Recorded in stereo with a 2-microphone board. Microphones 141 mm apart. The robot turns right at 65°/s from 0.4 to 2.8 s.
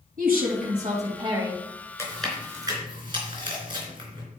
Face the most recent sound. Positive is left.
turn(degrees=-35)  # may be behind; listen again after turning